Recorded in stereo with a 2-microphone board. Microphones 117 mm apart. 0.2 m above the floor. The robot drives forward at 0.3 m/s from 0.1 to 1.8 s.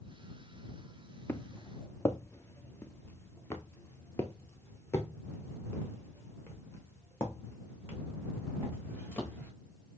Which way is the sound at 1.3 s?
20° left (ahead or behind).